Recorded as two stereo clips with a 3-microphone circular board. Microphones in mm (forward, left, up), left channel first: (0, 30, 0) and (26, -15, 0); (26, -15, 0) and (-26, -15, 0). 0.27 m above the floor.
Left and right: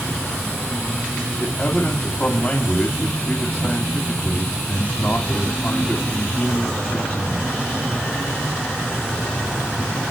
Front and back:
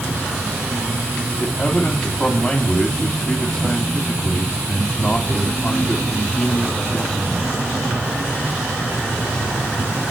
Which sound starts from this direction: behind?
An insect, at 0.0 s.